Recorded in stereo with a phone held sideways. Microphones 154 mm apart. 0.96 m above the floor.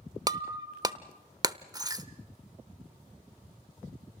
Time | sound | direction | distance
0.3 | breaking glass | 25° right (ahead or behind) | 0.8 m